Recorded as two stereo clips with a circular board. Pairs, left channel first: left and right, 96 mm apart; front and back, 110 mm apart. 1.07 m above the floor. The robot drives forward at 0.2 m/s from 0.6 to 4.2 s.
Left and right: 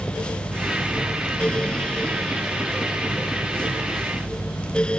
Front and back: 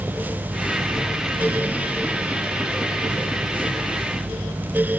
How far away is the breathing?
No breathing in this recording.